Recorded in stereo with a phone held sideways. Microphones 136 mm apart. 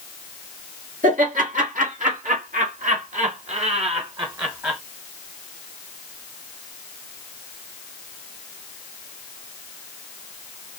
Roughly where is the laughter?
Right.